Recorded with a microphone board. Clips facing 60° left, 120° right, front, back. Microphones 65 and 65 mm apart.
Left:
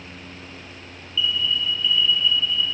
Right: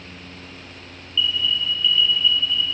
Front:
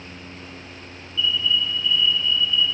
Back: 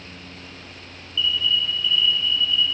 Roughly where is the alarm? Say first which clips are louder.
Right 1 dB, front 1 dB; ahead.